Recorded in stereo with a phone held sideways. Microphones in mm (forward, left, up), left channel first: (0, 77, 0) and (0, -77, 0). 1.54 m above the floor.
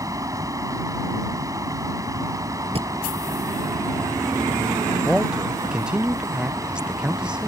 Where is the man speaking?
5° right (ahead or behind).